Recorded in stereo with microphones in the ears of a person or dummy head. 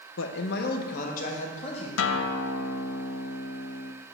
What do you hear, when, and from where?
0.2 s a man speaking: 70° left (ahead or behind), 0.7 m; by 1.9 s 40° left (ahead or behind), 1.9 m
2.0 s a guitar: 85° left, 0.5 m